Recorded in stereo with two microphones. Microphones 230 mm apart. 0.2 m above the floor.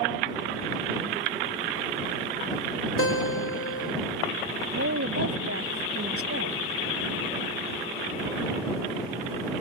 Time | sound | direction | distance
3.0 | a guitar | 75° left (ahead or behind) | ?
4.8 | a woman speaking | 75° right (ahead or behind) | ?